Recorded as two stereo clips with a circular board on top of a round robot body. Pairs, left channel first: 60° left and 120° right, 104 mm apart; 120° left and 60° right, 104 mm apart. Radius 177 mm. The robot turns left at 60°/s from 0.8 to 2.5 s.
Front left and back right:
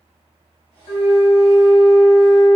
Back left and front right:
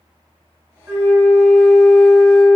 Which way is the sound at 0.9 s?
10° left.